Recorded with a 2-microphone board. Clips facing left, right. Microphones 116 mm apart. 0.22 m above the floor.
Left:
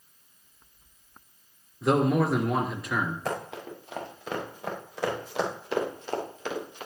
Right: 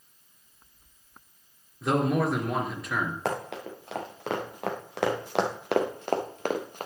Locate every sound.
1.8 s a man speaking: centre (ahead or behind), 3 m
3.2 s running footsteps: 80° right, 4.5 m; by 6.9 s 45° right (ahead or behind), 1.8 m